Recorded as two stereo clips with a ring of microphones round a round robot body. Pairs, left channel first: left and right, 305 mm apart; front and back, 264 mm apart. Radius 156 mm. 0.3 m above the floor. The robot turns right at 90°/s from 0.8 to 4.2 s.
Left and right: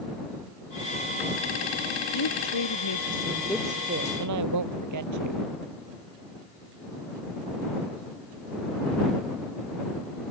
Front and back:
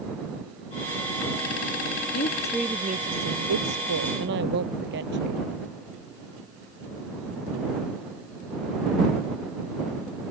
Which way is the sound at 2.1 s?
50° left.